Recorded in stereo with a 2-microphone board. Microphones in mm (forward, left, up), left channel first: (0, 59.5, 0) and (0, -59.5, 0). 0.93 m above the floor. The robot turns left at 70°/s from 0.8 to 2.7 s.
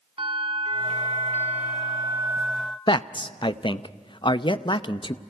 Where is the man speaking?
40° left (ahead or behind), 0.6 m.